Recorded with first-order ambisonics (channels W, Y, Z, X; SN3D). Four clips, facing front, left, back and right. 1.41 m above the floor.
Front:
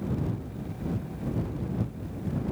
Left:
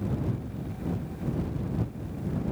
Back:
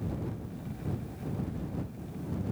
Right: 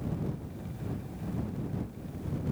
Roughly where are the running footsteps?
I don't hear running footsteps.